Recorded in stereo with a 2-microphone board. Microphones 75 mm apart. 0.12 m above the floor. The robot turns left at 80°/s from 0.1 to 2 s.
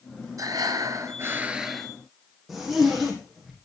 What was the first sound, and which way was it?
Breathing, 70° right.